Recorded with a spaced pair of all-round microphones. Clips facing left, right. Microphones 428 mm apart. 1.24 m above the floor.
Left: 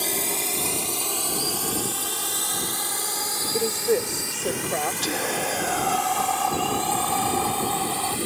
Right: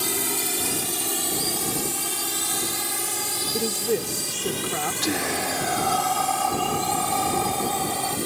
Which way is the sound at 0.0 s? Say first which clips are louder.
Right 1 dB; 30° right (ahead or behind).